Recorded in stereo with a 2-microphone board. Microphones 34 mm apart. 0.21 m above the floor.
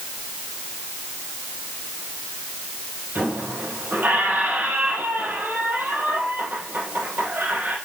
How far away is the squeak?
About 3 m.